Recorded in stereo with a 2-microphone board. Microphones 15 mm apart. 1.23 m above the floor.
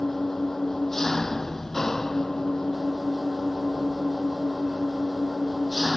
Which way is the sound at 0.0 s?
25° left (ahead or behind).